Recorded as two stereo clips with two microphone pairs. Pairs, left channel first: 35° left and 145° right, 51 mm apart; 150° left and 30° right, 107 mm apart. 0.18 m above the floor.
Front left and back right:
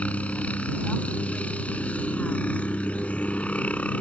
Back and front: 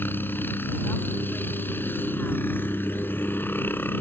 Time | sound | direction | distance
0.0 | a helicopter | 85° left | ?